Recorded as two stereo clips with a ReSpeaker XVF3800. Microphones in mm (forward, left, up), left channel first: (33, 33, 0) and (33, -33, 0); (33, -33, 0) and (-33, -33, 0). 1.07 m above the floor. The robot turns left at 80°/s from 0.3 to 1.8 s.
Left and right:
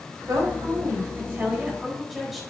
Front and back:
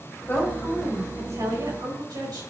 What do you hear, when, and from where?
0.3 s a woman speaking: 60° right, 4 m; by 2.4 s straight behind, 4 m